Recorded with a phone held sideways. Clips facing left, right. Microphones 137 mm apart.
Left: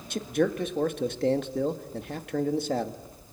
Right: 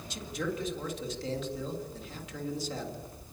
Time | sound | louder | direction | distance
0.1 | a man speaking | left 9 dB | 55° left (ahead or behind) | 1.7 m